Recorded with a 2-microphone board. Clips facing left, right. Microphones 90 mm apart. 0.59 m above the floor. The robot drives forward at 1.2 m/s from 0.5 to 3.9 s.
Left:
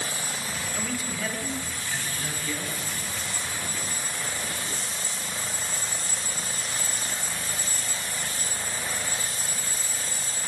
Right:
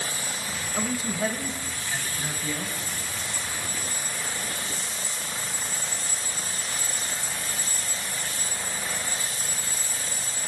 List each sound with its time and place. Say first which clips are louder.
0.8 s a man speaking: right 6 dB; 35° right (ahead or behind), 2.5 m; by 2.8 s 20° right (ahead or behind), 4.5 m